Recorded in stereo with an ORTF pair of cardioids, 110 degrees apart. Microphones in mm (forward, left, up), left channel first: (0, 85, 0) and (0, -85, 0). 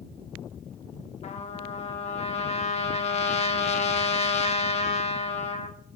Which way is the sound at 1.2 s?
40° left.